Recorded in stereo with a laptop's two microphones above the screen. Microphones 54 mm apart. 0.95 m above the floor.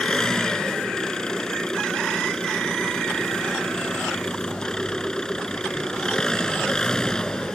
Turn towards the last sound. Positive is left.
turn(degrees=10)  # may be behind; listen again after turning